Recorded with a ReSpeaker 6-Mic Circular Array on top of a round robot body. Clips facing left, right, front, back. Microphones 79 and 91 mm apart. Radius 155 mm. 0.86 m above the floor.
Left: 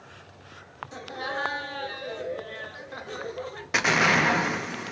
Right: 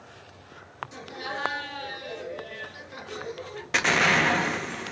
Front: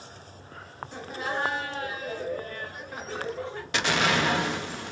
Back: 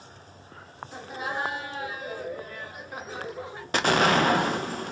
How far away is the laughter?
About 1.0 m.